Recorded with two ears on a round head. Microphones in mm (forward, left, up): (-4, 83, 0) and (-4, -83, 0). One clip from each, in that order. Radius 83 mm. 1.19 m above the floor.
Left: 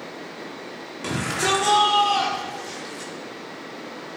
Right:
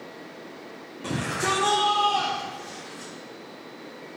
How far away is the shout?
About 3.5 m.